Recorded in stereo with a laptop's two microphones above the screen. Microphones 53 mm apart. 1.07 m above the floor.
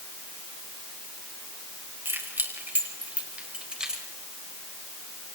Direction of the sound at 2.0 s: 45° right (ahead or behind).